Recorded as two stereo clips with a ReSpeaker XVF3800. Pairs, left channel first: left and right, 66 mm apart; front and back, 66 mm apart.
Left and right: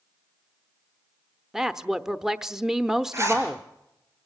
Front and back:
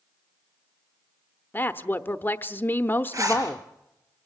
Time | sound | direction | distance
1.5 | a woman speaking | 15° right | 0.8 m
3.1 | a zipper | 140° right | 5.5 m